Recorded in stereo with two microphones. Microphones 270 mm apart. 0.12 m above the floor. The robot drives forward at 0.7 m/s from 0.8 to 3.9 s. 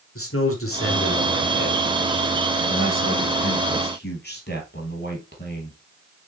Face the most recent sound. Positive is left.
turn(degrees=40)  # may be behind; listen again after turning